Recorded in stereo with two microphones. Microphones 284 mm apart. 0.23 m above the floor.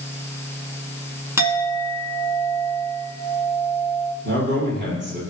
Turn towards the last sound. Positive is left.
turn(degrees=-40)  # may be behind; listen again after turning